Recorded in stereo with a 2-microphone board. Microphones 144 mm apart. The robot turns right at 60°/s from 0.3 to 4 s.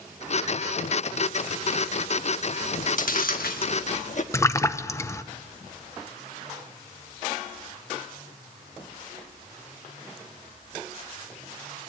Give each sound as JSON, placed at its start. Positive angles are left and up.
{"t": 2.6, "sound": "chewing", "side_deg": 40, "distance_m": 1.2}
{"t": 4.3, "sound": "a splash", "side_deg": 20, "distance_m": 0.6}